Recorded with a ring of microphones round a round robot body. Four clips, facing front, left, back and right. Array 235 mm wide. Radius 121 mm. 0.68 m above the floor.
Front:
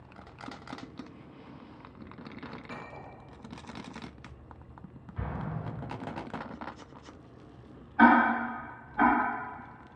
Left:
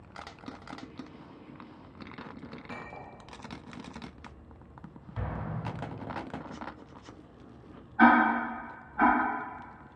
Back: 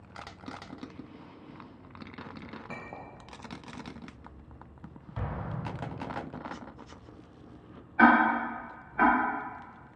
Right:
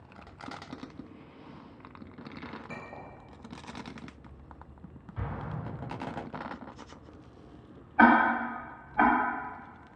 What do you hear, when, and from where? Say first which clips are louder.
2.7 s a clink: even, back 1 dB; 175° right, 0.8 m
5.2 s an explosion: left 1 dB, even; 150° left, 0.9 m
8.0 s ticking: even, even; 100° right, 1.1 m